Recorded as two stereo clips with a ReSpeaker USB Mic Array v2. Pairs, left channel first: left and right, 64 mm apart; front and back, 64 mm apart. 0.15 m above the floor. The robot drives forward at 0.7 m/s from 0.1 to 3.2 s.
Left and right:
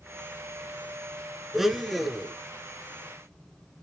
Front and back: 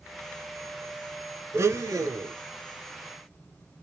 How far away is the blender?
About 0.6 m.